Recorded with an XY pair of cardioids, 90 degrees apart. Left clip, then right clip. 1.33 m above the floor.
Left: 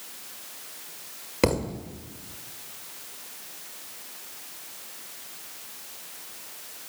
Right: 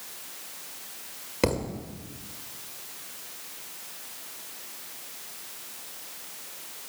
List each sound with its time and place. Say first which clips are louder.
1.4 s a thud: left 2 dB; 25° left, 2.5 m